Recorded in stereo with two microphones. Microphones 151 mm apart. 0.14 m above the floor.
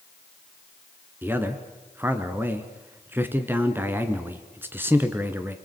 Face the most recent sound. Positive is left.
turn(degrees=-15)  # may be behind; listen again after turning